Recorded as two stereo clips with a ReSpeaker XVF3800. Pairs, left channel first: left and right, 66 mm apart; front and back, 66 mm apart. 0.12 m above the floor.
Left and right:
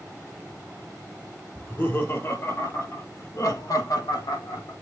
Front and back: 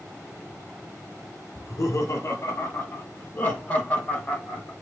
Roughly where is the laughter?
Ahead left.